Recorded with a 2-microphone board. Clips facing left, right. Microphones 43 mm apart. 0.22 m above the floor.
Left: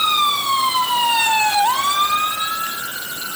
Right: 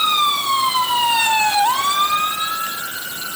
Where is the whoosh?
I don't hear a whoosh.